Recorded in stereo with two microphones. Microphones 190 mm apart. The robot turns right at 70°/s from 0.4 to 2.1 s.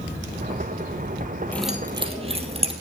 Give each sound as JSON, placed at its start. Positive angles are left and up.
{"t": 1.5, "sound": "keys jangling", "side_deg": 10, "distance_m": 2.5}